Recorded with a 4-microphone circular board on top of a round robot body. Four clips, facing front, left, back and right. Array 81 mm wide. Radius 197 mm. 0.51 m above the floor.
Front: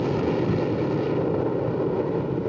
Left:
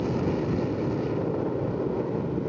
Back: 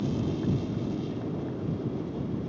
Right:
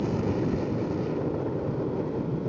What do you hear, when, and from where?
0.0 s an aircraft: 5° right; by 2.5 s straight ahead